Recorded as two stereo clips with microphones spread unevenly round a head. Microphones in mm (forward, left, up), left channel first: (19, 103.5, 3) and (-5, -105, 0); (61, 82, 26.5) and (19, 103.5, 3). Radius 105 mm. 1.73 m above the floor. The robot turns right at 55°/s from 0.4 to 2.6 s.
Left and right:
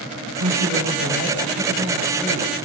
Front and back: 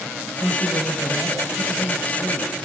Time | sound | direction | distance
0.4 | a woman speaking | 145° right | 8.5 m